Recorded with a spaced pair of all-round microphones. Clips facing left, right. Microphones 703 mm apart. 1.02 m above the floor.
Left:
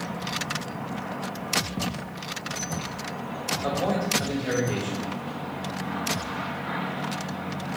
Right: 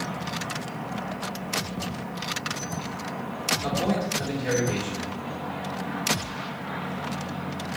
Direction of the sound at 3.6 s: 50° right (ahead or behind).